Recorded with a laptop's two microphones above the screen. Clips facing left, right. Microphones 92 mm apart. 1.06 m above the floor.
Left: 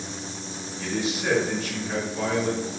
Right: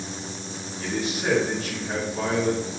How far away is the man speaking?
About 1.6 m.